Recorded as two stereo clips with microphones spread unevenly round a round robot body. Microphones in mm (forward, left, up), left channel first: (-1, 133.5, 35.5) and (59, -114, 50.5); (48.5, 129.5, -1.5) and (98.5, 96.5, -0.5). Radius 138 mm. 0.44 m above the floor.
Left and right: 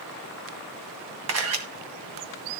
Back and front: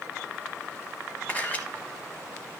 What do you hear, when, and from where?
1.3 s a camera shutter: 115° right, 1.9 m